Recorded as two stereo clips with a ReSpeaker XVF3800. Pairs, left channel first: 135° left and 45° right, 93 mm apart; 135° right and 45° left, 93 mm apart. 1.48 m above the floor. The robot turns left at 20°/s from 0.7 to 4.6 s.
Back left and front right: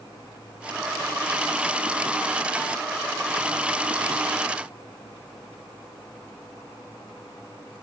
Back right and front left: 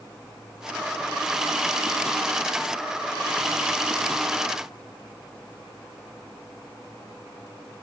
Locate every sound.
Only background noise.